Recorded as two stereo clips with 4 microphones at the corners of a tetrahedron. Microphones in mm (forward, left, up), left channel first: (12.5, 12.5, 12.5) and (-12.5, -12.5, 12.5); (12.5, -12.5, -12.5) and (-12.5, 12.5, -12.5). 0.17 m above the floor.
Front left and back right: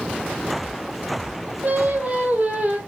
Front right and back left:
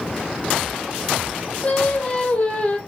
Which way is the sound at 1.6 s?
95° right.